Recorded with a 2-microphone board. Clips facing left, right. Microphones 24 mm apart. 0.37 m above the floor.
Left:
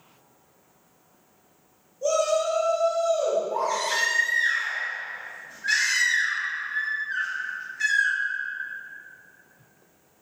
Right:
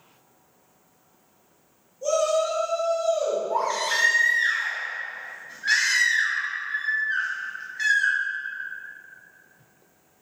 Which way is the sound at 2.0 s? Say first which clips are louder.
Even; 5° left (ahead or behind).